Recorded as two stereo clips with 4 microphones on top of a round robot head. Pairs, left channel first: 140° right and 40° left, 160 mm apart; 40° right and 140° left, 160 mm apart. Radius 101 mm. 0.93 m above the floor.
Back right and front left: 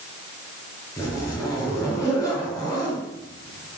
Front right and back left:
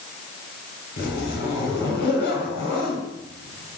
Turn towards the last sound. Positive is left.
turn(degrees=-70)